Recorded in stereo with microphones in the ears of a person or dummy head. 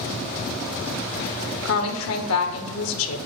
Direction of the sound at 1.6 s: 85° left.